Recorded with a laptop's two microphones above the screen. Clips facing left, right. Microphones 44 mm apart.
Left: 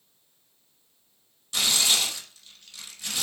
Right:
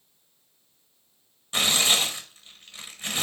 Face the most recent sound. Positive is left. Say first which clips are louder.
# right 2 dB
turn(degrees=-30)  # may be behind; listen again after turning